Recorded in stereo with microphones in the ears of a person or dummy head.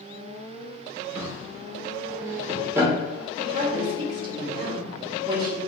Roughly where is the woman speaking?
Right.